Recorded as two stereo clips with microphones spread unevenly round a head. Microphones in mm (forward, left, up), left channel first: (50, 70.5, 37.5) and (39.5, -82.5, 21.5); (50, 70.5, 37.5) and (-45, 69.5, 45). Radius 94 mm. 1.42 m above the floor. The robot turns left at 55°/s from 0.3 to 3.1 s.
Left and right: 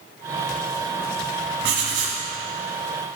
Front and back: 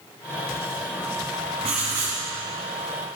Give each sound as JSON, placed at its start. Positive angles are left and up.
{"t": 1.6, "sound": "writing", "azimuth_deg": -120, "distance_m": 1.4}